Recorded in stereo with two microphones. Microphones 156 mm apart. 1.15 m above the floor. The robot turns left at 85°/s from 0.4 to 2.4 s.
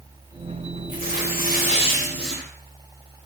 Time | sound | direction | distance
0.9 | tearing paper | 120° left | 4.5 m